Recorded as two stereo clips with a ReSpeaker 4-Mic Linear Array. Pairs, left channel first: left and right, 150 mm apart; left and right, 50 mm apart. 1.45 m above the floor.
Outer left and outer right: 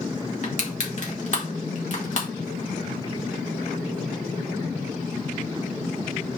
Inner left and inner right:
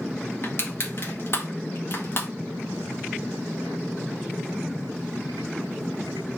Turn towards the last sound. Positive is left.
turn(degrees=55)  # may be behind; listen again after turning